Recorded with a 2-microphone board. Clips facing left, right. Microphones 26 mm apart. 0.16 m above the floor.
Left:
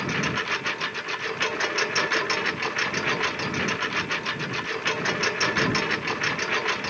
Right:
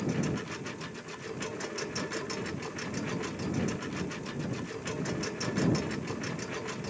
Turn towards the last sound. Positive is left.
turn(degrees=60)  # may be behind; listen again after turning